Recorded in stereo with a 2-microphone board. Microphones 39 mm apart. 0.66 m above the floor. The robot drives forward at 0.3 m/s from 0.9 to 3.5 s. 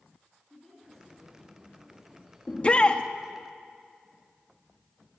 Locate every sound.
0.5 s a woman speaking: 10° left (ahead or behind), 7 m
2.5 s a shout: 30° left (ahead or behind), 0.7 m